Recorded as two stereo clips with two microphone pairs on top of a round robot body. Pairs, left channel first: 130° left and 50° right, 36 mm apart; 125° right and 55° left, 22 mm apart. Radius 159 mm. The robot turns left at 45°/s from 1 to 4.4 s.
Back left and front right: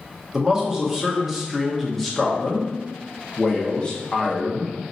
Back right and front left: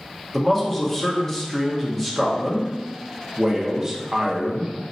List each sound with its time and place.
0.3 s a man speaking: 105° right, 1.4 m; by 4.9 s 100° left, 1.4 m